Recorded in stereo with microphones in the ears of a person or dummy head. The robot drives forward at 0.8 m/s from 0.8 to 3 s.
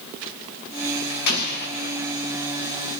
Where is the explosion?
60° left (ahead or behind), 1.6 m; by 2.1 s 45° left (ahead or behind), 2 m.